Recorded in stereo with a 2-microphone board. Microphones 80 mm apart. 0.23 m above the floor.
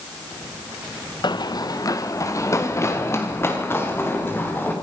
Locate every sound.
1.2 s running footsteps: 60° left (ahead or behind), 1.6 m; by 4.7 s 25° left (ahead or behind), 6 m